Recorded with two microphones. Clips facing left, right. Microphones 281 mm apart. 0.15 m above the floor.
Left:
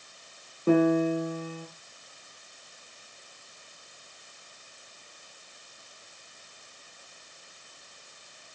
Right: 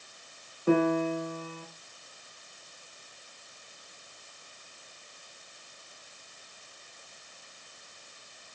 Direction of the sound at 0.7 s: 40° left (ahead or behind).